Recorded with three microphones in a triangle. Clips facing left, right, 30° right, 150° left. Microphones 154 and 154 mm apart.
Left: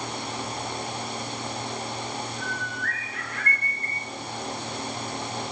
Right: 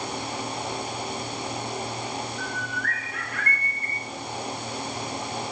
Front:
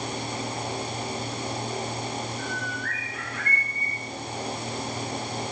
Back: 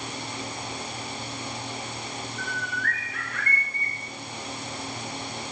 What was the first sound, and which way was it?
A bird, 140° left.